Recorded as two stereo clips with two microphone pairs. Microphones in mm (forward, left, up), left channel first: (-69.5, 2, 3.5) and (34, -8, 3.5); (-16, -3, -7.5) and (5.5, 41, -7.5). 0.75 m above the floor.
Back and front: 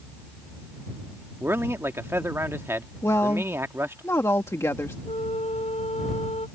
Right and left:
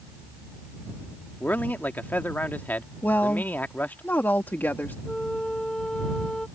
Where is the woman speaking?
135° right.